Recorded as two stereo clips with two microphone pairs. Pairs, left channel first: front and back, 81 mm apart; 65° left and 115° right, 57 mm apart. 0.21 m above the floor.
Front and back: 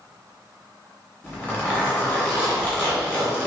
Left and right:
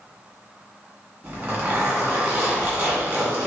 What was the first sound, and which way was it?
A zipper, 55° right.